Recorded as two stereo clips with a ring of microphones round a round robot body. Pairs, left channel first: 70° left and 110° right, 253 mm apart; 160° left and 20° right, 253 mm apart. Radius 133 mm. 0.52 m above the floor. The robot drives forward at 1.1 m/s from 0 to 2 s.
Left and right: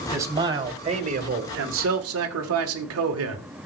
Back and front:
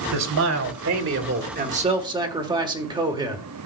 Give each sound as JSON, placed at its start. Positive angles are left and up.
{"t": 0.1, "sound": "a man speaking", "azimuth_deg": -35, "distance_m": 2.5}